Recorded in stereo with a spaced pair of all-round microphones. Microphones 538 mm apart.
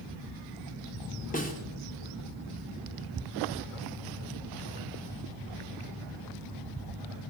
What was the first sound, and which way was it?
A snare drum, 15° left (ahead or behind).